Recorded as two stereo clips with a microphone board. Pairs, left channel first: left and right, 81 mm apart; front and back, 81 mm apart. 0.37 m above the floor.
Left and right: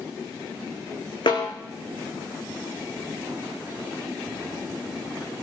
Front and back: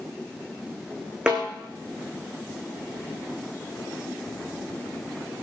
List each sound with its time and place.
1.3 s a snare drum: 105° left, 4.5 m